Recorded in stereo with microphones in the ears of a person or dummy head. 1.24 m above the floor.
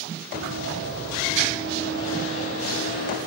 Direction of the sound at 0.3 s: 40° right (ahead or behind).